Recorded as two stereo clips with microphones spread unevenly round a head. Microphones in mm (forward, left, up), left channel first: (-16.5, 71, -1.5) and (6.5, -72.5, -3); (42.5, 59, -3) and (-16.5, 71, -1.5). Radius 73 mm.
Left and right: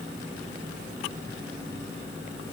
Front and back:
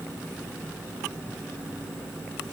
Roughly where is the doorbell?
No doorbell in this recording.